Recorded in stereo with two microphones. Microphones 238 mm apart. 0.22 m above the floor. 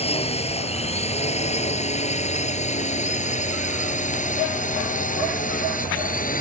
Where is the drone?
25° left (ahead or behind); by 6.4 s 35° left (ahead or behind).